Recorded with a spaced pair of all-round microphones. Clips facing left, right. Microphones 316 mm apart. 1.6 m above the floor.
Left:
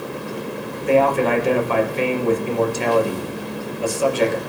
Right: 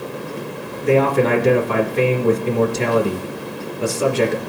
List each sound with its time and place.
0.8 s a man speaking: 75° right (ahead or behind), 2.5 m